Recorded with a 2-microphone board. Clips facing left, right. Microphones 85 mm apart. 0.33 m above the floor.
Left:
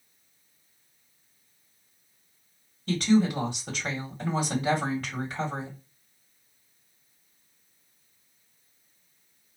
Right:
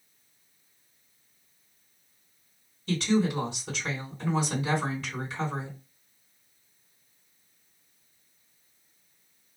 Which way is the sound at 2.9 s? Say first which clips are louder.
Left 3 dB; 55° left (ahead or behind).